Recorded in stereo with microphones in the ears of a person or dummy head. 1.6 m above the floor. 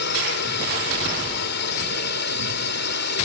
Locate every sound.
0.0 s a drone: 55° left (ahead or behind)